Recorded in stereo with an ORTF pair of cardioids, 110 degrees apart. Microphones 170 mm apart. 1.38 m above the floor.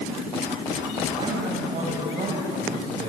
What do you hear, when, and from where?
1.2 s a man speaking: 35° right, 7.5 m; by 3.1 s 40° right, 5.5 m